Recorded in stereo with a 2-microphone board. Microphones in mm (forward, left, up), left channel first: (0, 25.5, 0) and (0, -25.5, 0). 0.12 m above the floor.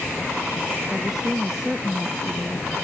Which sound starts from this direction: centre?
A woman speaking, at 0.9 s.